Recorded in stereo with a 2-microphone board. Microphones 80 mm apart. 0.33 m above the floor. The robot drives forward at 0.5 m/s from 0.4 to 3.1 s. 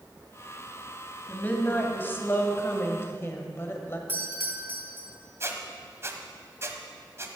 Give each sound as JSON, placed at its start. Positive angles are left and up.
{"t": 1.3, "sound": "a woman speaking", "side_deg": 25, "distance_m": 2.0}
{"t": 4.1, "sound": "a doorbell", "side_deg": -25, "distance_m": 2.5}
{"t": 5.4, "sound": "a squeak", "side_deg": -35, "distance_m": 1.2}